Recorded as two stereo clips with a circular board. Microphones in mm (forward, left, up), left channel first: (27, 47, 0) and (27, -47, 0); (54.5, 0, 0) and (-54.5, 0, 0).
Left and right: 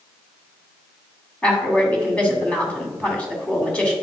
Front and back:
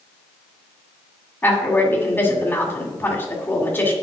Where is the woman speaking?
35° left, 1.6 m.